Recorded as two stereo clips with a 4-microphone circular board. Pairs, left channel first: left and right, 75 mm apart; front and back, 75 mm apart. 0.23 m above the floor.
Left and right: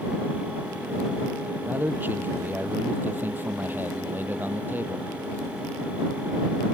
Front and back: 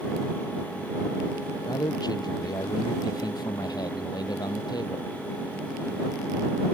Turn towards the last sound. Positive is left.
turn(degrees=-25)